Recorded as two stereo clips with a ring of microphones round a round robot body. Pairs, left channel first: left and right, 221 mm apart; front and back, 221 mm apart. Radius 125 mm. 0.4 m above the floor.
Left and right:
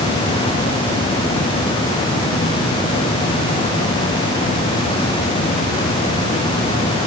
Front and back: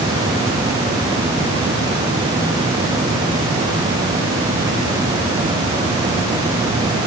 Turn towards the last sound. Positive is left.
No sound to turn to.